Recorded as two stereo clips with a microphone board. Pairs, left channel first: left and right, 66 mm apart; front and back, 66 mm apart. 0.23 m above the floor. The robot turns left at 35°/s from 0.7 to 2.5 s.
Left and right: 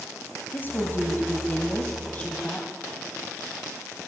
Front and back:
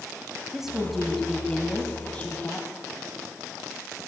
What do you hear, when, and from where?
0.5 s a woman speaking: 100° left, 1.7 m; by 2.7 s 35° left, 1.7 m